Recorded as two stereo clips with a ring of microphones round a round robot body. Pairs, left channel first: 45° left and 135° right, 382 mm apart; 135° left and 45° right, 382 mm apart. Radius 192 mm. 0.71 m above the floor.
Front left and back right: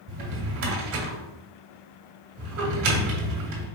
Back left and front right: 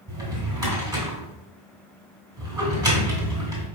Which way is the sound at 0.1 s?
125° right.